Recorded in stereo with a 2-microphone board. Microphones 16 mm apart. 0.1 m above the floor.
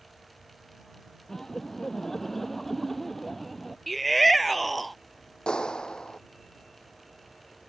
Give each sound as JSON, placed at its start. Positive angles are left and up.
{"t": 1.3, "sound": "laughter", "side_deg": 25}
{"t": 3.9, "sound": "a shout", "side_deg": 5}
{"t": 5.5, "sound": "a clap", "side_deg": 65}